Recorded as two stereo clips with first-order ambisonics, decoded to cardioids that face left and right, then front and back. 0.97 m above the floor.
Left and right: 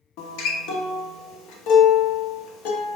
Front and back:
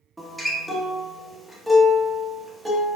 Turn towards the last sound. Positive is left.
turn(degrees=95)